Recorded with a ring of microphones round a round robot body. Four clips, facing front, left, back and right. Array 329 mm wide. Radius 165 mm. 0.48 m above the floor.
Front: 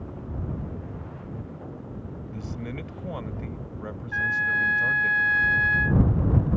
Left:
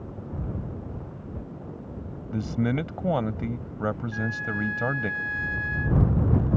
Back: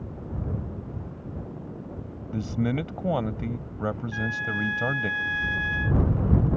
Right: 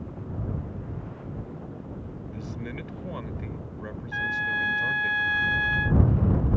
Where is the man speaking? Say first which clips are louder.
Left 12 dB, back 10 dB; 125° left.